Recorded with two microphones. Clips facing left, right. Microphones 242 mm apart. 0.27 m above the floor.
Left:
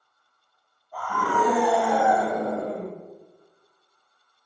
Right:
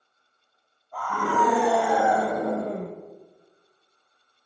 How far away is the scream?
About 2 m.